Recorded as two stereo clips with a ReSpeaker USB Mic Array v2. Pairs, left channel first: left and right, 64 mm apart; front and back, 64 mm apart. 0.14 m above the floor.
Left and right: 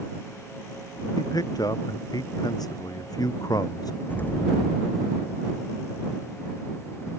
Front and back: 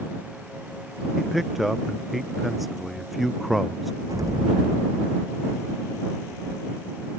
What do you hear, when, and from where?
1.2 s a man speaking: 90° left
4.1 s an explosion: 155° left